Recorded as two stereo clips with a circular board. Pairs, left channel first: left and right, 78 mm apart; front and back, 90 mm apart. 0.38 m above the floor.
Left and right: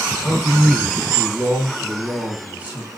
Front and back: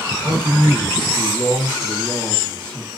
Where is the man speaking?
165° left, 1.3 m; by 2.9 s 50° right, 1.2 m.